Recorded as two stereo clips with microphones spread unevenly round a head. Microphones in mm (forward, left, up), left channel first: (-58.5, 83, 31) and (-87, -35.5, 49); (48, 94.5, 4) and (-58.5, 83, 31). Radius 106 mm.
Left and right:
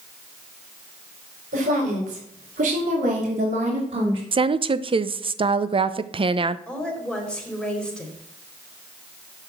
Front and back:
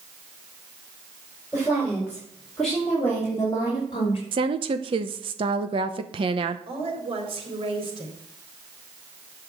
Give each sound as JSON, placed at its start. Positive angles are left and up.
{"t": 1.5, "sound": "a woman speaking", "azimuth_deg": -95, "distance_m": 5.0}
{"t": 4.3, "sound": "a woman speaking", "azimuth_deg": -135, "distance_m": 0.8}
{"t": 6.7, "sound": "a woman speaking", "azimuth_deg": 160, "distance_m": 4.0}